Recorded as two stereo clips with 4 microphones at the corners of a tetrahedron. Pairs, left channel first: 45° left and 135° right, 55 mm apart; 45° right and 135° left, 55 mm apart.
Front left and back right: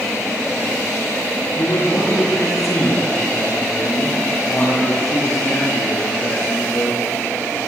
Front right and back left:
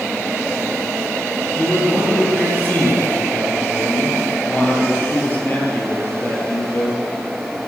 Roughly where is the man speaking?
Ahead.